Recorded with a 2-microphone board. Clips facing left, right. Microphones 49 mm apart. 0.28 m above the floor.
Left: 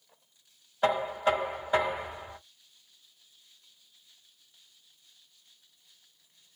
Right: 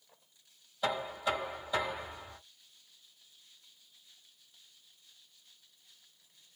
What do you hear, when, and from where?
0.8 s knocking: 40° left (ahead or behind), 1.3 m